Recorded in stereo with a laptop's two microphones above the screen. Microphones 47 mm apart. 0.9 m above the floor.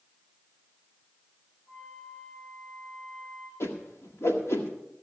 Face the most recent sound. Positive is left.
turn(degrees=65)  # may be behind; listen again after turning